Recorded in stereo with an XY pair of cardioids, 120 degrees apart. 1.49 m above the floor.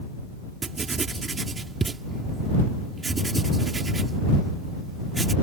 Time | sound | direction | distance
0.6 | writing | 25° right | ?